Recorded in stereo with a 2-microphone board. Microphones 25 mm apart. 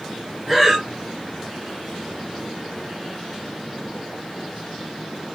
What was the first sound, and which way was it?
Breathing, 5° right (ahead or behind).